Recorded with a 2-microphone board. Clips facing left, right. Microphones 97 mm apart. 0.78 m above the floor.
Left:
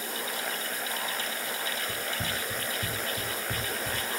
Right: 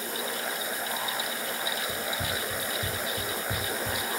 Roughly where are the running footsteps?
Left.